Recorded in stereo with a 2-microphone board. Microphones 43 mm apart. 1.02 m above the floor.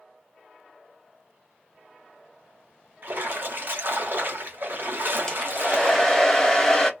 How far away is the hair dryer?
About 0.7 m.